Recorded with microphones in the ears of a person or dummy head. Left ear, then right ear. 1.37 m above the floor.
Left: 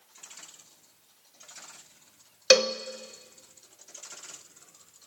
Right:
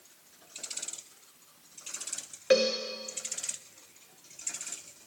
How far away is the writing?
I don't hear writing.